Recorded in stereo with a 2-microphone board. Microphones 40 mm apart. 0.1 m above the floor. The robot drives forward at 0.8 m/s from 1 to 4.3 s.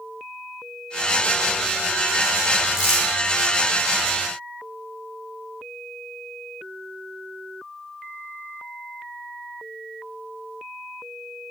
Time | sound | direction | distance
2.7 | crumpling | 15° right (ahead or behind) | 6.5 m